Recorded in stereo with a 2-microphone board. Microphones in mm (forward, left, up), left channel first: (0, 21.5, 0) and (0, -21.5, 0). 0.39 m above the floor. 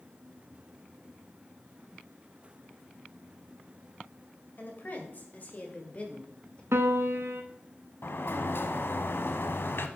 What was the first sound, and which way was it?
A woman speaking, 45° left (ahead or behind).